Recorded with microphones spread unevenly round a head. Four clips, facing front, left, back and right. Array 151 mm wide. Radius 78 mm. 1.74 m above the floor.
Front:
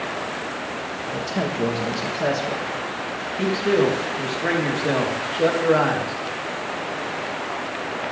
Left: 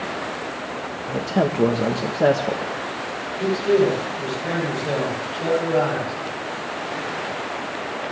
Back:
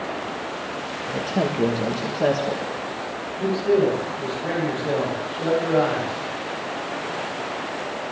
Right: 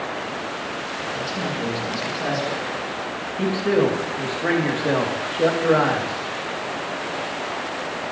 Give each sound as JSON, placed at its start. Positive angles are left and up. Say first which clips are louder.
{"t": 1.1, "sound": "a man speaking", "louder": "left 8 dB, back 2 dB", "azimuth_deg": 105, "distance_m": 1.6}
{"t": 3.4, "sound": "a man speaking", "louder": "left 1 dB, even", "azimuth_deg": -50, "distance_m": 4.5}